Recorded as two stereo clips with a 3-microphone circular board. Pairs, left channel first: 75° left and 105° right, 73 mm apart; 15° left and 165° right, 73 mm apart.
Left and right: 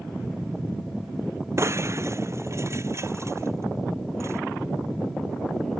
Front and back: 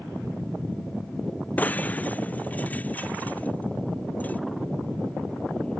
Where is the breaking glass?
55° right.